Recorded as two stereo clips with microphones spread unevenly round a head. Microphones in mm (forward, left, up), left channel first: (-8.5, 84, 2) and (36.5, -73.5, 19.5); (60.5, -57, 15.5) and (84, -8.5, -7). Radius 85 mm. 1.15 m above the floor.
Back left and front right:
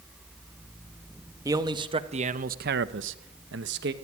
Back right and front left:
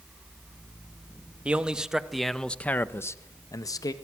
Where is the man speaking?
Straight ahead, 1.9 m; by 3.9 s 105° right, 1.6 m.